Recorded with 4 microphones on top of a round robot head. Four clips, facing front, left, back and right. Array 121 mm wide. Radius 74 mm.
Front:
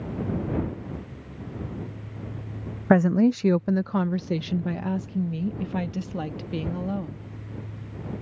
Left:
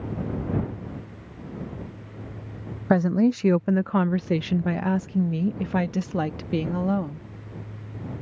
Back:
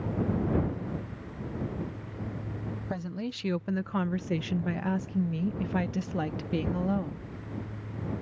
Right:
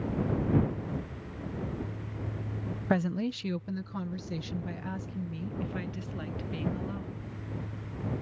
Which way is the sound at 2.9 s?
30° left.